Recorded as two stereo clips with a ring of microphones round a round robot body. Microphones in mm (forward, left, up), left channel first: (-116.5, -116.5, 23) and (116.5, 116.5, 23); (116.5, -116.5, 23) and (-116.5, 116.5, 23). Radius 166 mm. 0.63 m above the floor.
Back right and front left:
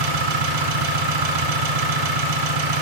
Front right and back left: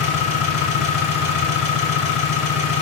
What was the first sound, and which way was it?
An engine running, 25° left.